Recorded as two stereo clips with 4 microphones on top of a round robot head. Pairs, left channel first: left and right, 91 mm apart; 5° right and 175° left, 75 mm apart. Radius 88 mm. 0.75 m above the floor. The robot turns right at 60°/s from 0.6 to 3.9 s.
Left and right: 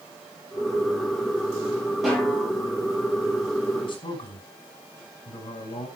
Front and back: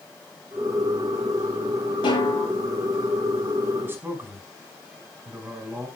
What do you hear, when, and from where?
2.0 s a snare drum: 5° right, 9.5 m; by 2.5 s 25° left, 9.5 m
3.8 s a man speaking: 110° left, 5.5 m; by 5.9 s 115° left, 5.5 m